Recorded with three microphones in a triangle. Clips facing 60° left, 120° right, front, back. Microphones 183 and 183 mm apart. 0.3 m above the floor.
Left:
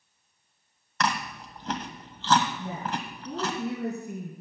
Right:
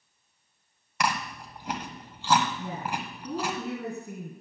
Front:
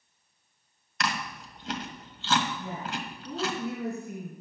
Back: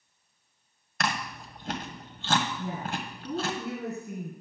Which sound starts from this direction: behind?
Chewing, at 1.0 s.